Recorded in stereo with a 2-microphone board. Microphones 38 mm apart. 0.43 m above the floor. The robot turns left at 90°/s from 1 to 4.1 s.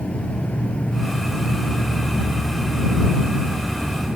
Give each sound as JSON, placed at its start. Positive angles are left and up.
{"t": 0.0, "sound": "an insect", "azimuth_deg": 140}